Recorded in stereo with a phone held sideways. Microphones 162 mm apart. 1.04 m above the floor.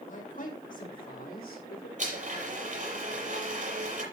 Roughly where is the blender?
Right.